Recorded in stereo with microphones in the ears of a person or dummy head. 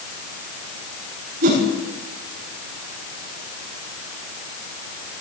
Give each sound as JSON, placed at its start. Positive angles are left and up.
{"t": 1.4, "sound": "a whoosh", "side_deg": -40, "distance_m": 6.5}